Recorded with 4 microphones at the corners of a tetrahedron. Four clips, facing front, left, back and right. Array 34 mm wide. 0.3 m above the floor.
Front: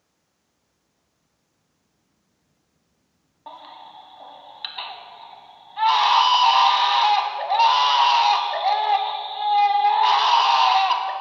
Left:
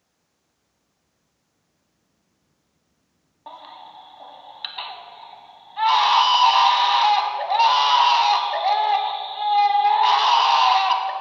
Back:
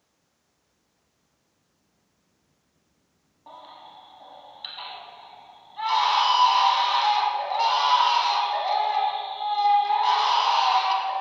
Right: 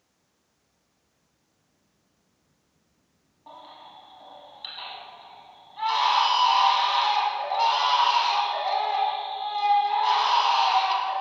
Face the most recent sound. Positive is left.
turn(degrees=50)